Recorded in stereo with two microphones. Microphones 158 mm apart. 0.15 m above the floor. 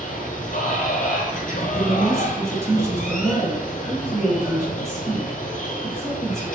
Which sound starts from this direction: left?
Running water, at 0.0 s.